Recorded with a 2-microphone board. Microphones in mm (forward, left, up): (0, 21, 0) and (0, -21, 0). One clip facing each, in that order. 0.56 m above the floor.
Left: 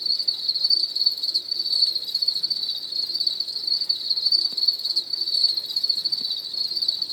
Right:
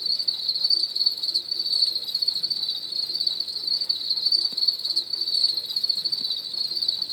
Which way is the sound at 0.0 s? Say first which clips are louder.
Left 1 dB; 15° right (ahead or behind).